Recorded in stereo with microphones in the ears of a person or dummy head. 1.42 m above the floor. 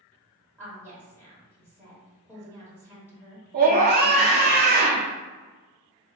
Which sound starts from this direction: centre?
A woman speaking, at 0.6 s.